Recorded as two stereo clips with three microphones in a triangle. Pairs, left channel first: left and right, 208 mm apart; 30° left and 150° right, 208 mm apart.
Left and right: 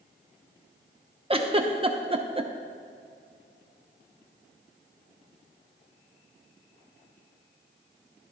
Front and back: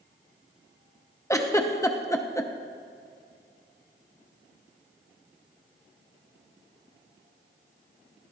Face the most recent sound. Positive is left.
turn(degrees=-40)